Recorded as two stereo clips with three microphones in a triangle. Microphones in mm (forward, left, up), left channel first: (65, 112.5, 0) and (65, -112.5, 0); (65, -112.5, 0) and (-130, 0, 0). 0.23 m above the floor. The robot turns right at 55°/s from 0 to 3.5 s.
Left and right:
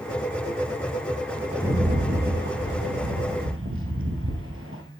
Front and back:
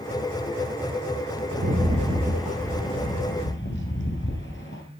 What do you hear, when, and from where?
1.5 s a rattle: 175° right, 2.5 m; by 4.8 s 65° right, 2.5 m